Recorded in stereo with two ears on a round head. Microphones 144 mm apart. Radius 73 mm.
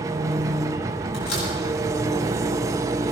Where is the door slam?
65° left (ahead or behind), 7 m.